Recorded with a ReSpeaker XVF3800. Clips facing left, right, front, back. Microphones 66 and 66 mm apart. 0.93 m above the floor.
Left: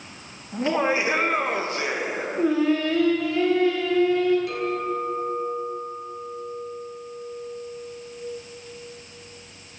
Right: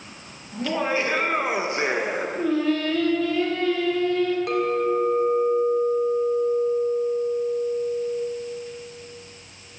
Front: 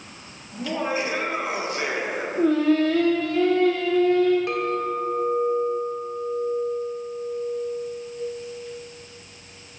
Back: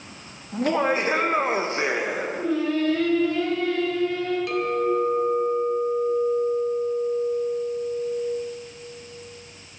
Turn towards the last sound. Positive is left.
turn(degrees=-60)